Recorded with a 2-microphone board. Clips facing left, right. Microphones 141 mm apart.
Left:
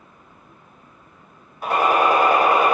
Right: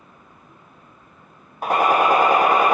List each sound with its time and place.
1.6 s a gunshot: 45° right (ahead or behind), 0.9 m